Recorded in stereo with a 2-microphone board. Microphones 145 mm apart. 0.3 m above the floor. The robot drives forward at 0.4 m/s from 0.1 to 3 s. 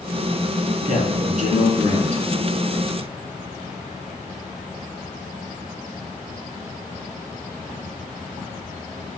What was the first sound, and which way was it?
A man speaking, 65° right (ahead or behind).